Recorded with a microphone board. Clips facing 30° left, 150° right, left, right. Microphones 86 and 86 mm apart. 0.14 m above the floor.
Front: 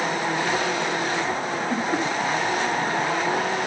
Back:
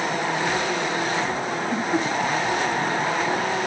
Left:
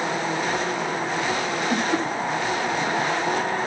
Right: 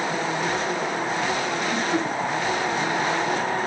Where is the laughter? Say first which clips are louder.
Back 1 dB, left 2 dB; 70° left, 10 m.